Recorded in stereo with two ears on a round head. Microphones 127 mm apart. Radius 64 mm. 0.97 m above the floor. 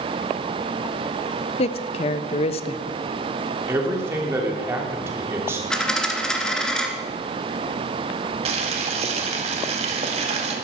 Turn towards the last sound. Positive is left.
turn(degrees=-45)  # may be behind; listen again after turning